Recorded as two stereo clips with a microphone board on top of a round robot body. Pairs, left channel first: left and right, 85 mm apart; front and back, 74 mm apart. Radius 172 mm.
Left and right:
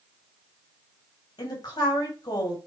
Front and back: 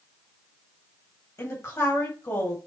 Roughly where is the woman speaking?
Ahead left.